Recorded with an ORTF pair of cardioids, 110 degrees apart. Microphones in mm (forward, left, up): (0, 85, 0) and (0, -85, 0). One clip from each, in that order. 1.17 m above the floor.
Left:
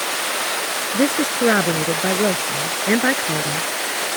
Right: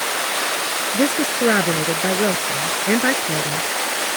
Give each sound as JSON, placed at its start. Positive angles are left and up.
{"t": 0.9, "sound": "a woman speaking", "azimuth_deg": 10}